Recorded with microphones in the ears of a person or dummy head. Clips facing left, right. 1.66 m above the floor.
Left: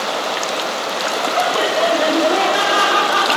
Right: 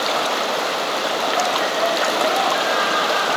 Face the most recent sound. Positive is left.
turn(degrees=70)  # may be behind; listen again after turning